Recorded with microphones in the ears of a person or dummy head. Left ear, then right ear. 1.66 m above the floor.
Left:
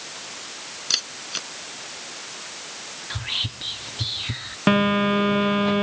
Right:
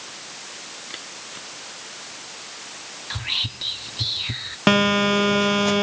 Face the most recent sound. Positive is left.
turn(degrees=-80)